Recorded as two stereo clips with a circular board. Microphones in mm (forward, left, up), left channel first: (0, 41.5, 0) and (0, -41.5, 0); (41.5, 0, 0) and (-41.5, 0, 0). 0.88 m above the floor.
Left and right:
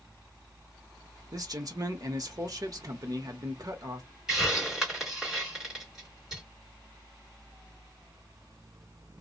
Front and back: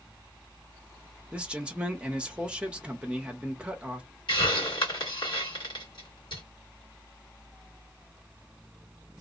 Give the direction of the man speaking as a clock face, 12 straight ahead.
4 o'clock.